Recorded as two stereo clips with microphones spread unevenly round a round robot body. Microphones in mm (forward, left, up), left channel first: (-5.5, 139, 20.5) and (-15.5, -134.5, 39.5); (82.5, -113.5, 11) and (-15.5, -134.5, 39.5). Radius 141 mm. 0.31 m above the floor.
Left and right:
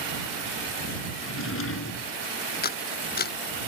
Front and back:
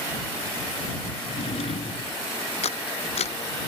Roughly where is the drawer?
Ahead left.